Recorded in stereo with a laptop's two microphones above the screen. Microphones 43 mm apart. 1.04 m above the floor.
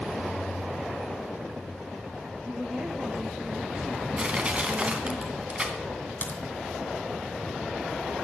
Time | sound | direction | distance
2.5 | a woman speaking | 30° right (ahead or behind) | 1.1 m
4.2 | crushing | 25° right (ahead or behind) | 2.5 m
6.2 | a crack | 45° left (ahead or behind) | 2.5 m